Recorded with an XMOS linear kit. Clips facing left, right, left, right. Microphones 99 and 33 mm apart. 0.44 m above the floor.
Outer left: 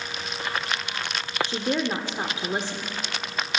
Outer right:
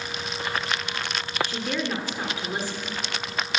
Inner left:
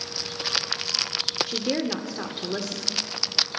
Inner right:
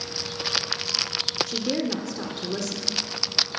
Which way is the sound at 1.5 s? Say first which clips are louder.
Outer left 3 dB, even; 25° left (ahead or behind).